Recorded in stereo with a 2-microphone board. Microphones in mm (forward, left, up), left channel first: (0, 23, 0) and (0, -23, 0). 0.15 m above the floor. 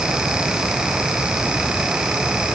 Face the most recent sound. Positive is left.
No sound to turn to.